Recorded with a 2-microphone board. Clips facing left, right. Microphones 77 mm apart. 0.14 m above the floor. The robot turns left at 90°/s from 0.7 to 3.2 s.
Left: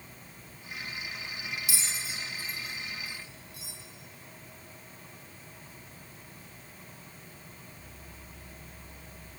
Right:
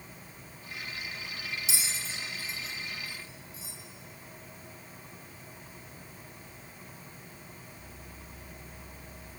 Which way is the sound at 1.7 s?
25° right (ahead or behind).